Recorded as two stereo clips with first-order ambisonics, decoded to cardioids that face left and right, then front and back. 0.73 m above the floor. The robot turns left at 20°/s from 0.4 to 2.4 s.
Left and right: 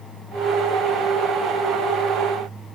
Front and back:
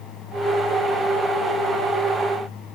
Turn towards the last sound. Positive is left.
No sound to turn to.